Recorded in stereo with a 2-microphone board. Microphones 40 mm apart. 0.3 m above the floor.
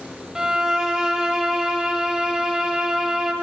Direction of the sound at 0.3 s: 20° right (ahead or behind).